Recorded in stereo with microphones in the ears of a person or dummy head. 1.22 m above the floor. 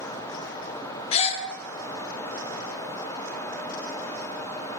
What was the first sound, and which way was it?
A gasp, 35° left (ahead or behind).